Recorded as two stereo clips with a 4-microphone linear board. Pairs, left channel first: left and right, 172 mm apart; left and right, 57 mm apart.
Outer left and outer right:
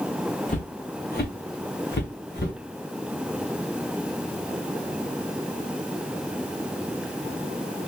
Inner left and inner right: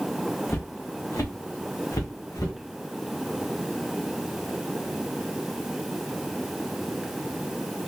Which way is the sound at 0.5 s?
45° left (ahead or behind).